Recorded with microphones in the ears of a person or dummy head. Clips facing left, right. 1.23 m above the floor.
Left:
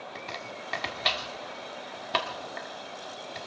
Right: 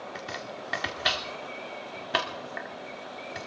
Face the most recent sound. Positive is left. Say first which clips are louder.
# right 2 dB
turn(degrees=-10)  # may be behind; listen again after turning